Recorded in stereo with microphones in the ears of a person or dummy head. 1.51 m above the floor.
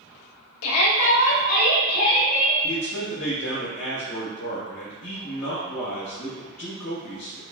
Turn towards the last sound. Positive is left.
turn(degrees=40)  # may be behind; listen again after turning